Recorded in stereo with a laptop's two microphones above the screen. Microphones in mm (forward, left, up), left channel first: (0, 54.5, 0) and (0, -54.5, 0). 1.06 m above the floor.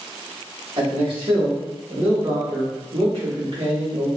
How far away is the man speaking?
About 1.4 m.